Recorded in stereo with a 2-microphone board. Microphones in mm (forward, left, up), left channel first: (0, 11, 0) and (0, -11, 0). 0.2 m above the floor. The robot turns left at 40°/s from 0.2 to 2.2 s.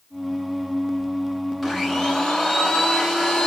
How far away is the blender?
About 1.3 m.